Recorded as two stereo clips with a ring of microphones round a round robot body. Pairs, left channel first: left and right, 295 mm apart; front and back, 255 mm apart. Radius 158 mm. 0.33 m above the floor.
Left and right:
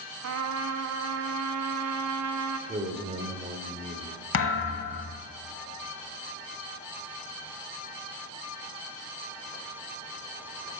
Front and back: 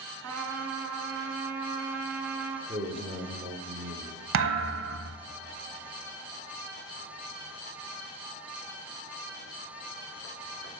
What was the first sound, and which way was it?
A trumpet, 130° right.